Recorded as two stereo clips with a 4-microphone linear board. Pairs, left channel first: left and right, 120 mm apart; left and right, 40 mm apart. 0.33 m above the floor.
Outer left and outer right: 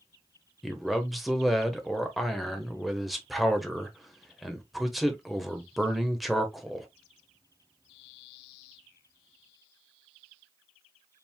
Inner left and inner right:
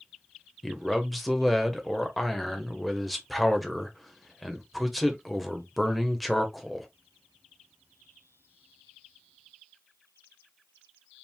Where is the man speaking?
Centre (ahead or behind), 0.9 m.